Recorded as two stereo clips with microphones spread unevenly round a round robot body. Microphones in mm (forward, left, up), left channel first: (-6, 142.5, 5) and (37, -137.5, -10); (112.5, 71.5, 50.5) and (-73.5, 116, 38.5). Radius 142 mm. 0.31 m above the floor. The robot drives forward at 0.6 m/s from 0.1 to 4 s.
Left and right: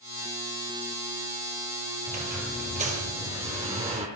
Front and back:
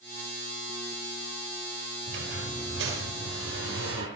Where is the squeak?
145° right, 4 m; by 4.1 s 155° right, 5 m.